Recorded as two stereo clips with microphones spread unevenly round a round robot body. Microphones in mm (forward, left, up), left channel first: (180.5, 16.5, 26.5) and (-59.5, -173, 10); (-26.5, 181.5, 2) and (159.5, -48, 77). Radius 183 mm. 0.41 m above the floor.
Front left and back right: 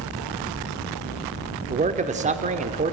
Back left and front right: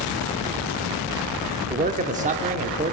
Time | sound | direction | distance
1.7 | a man speaking | 120° right | 0.8 m